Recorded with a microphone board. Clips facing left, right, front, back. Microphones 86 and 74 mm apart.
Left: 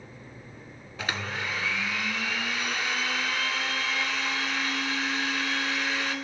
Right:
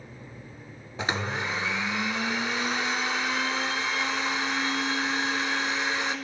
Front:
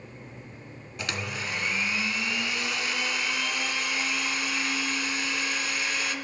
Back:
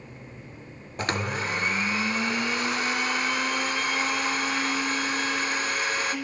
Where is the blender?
150° right, 0.5 m.